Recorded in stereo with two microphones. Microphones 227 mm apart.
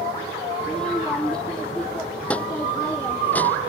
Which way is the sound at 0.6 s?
5° left (ahead or behind).